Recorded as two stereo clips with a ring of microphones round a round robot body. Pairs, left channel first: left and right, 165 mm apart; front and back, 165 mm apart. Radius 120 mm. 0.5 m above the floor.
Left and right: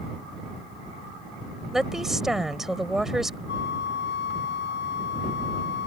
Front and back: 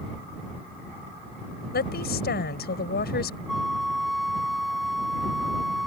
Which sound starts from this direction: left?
A flute, at 3.5 s.